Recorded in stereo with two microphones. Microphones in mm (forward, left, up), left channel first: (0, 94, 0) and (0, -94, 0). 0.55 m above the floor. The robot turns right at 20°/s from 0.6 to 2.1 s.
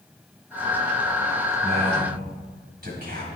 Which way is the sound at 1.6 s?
65° right (ahead or behind).